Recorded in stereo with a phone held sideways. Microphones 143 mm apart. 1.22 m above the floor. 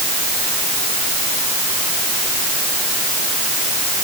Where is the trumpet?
I don't hear a trumpet.